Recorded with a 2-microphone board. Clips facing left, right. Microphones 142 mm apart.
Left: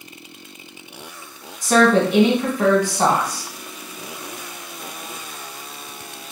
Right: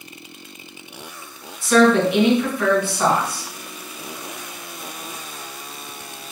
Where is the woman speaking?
35° left (ahead or behind), 1.4 m.